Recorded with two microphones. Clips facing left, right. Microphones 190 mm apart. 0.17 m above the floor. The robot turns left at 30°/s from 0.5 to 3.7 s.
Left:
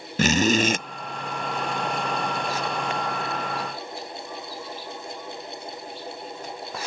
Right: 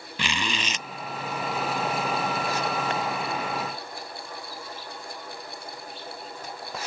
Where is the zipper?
45° left (ahead or behind); by 0.8 s 55° left (ahead or behind).